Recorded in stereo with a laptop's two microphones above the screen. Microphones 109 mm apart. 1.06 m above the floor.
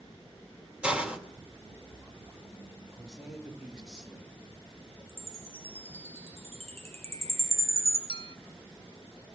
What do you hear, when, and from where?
0.8 s a hiss: 10° right (ahead or behind), 2.5 m
2.9 s a man speaking: 5° right (ahead or behind), 1.8 m
5.1 s a chime: 70° right (ahead or behind), 3 m
8.1 s a clink: 55° left (ahead or behind), 0.9 m